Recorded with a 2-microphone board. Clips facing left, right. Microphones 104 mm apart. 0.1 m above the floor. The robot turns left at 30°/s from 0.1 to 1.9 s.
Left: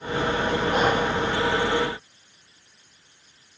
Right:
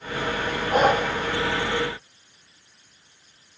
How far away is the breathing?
About 2.5 m.